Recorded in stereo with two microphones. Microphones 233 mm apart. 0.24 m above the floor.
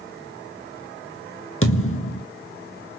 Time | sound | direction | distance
1.6 | a thud | 65° left (ahead or behind) | 1.1 m